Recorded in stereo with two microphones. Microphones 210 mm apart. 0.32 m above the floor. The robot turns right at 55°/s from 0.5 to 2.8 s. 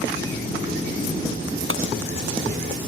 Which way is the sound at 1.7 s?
80° right.